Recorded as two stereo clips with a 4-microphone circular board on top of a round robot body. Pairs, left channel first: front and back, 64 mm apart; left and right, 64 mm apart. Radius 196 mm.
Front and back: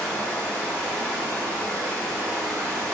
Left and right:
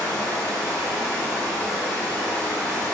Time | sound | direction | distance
0.0 | running water | 135° right | 1.9 m